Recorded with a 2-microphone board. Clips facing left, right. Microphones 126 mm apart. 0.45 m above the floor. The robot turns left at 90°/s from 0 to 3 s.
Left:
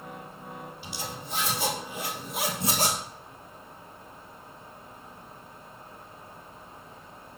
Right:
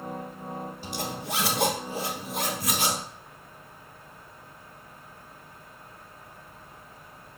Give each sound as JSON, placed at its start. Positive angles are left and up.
{"t": 0.8, "sound": "a zipper", "side_deg": -45, "distance_m": 1.9}